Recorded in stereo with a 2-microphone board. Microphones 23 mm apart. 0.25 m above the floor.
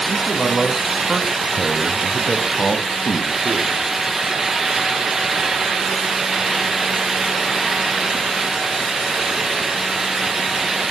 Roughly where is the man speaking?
Right.